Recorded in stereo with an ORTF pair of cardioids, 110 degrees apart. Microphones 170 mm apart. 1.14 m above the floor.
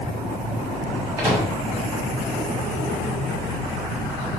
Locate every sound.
1.2 s a microwave: 20° right, 1.2 m